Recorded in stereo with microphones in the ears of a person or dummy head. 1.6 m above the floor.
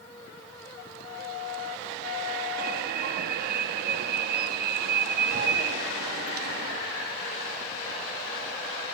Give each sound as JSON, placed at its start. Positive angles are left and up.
{"t": 2.6, "sound": "an alarm", "side_deg": -60, "distance_m": 3.5}